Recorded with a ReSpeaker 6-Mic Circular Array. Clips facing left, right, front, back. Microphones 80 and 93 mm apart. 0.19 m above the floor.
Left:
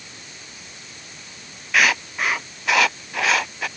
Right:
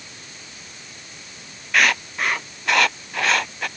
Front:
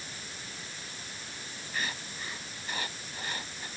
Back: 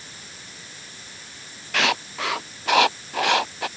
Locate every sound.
1.7 s writing: straight behind